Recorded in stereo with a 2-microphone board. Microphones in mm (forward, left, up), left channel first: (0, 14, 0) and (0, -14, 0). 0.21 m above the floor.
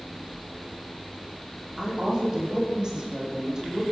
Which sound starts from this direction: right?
A woman speaking, at 1.8 s.